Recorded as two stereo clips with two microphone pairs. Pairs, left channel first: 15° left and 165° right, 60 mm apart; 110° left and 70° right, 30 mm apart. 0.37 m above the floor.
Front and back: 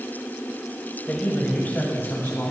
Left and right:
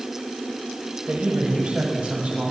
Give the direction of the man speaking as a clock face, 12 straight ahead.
1 o'clock.